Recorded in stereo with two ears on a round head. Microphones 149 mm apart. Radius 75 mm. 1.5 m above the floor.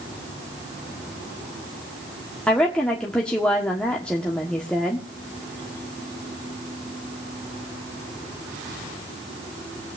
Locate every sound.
2.5 s a woman speaking: 5° left (ahead or behind), 1.4 m